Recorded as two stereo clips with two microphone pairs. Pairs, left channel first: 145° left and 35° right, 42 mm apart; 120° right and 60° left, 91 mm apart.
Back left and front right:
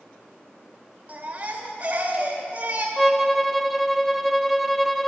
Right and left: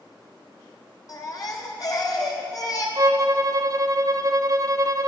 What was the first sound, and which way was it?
A baby crying, 85° right.